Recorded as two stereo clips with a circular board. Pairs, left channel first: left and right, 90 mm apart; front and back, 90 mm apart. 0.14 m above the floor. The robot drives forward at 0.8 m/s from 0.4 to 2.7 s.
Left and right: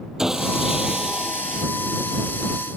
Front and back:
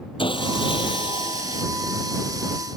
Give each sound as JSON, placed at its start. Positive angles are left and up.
{"t": 0.2, "sound": "sawing", "azimuth_deg": -5}